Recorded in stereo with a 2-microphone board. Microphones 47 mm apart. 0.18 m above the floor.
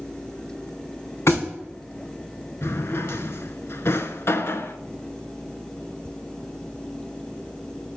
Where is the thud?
70° left (ahead or behind), 2.5 m.